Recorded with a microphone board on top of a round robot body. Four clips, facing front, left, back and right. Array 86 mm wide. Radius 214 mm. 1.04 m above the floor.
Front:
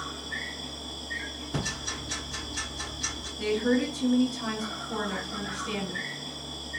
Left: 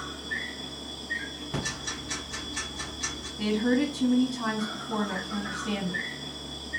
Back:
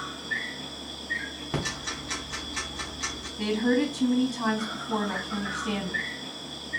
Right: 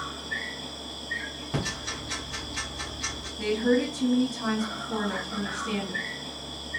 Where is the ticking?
175° right, 1.9 m.